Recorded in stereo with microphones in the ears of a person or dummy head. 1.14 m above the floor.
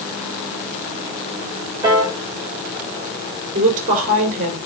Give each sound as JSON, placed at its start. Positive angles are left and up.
{"t": 1.8, "sound": "a piano", "side_deg": -20, "distance_m": 5.0}
{"t": 3.5, "sound": "a woman speaking", "side_deg": -40, "distance_m": 4.0}